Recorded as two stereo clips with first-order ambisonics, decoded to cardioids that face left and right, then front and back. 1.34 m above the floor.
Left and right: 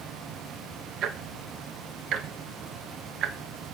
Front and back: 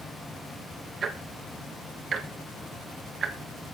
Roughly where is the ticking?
Behind right.